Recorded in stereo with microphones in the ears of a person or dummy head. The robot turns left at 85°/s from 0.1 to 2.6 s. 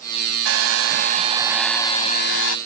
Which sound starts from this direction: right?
A hair dryer, at 0.5 s.